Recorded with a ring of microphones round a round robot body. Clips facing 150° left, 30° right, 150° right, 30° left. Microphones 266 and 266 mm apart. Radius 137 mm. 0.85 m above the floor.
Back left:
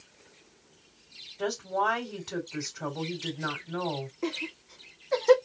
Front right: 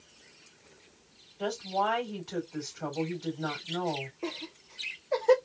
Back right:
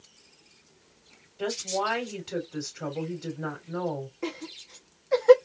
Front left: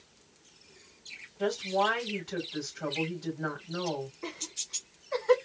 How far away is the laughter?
About 1.3 m.